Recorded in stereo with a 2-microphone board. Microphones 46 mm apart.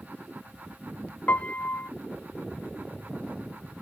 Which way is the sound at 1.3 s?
35° left (ahead or behind).